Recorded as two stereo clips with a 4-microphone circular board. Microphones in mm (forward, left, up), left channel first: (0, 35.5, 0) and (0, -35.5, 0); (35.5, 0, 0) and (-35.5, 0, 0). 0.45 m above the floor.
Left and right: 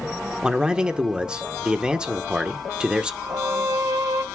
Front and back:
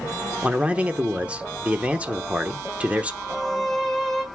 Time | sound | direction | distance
0.4 | a man speaking | 145° right | 0.9 m
3.2 | a violin | 80° right | 1.9 m